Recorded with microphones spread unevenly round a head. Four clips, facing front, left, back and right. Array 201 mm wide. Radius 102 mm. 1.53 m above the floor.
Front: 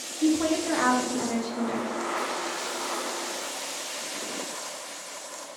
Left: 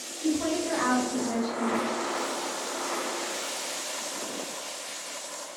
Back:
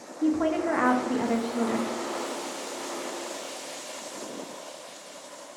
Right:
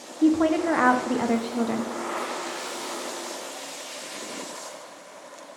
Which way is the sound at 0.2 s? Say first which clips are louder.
Right 7 dB, front 1 dB; 85° right.